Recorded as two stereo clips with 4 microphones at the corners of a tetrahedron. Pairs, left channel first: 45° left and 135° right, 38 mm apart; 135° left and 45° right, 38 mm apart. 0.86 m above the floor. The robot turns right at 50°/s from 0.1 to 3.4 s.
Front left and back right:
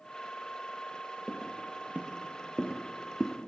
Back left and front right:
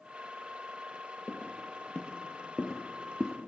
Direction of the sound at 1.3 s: 155° left.